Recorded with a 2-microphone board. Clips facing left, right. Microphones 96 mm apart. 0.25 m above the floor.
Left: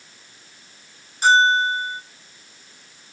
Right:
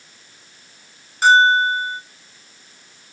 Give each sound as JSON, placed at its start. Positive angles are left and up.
{"t": 1.2, "sound": "a bell", "side_deg": -80, "distance_m": 0.8}